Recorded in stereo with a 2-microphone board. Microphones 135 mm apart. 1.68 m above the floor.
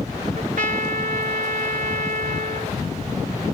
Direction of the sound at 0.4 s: 70° right (ahead or behind).